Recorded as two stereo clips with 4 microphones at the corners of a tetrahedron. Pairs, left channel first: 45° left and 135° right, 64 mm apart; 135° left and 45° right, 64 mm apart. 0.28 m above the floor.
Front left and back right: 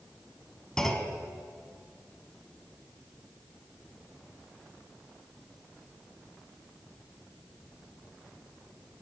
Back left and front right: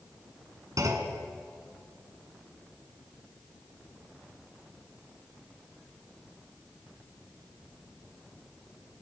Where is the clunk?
35° right, 1.6 m.